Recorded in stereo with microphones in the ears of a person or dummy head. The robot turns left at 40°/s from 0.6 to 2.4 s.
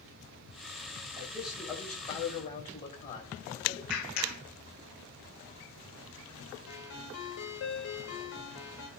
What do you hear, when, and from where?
1.1 s a man speaking: 165° right, 5 m; by 3.8 s 145° left, 5 m
3.9 s a clap: 55° left (ahead or behind), 3 m
6.7 s a ringtone: 60° left (ahead or behind), 4.5 m